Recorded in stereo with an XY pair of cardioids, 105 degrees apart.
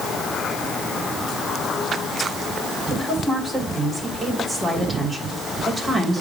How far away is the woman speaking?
About 2.5 m.